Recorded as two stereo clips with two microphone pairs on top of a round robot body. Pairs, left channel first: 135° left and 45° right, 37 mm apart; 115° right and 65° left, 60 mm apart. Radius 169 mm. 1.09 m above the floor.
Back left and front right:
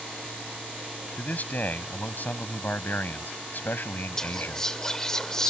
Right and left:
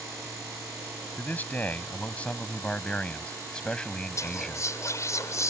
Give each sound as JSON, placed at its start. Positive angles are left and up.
{"t": 1.2, "sound": "a man speaking", "azimuth_deg": -175}
{"t": 4.2, "sound": "whispering", "azimuth_deg": -150}